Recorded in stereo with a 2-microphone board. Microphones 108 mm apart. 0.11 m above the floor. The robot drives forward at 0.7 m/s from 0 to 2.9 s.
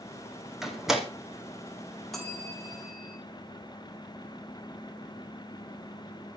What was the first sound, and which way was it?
A door slam, 5° right (ahead or behind).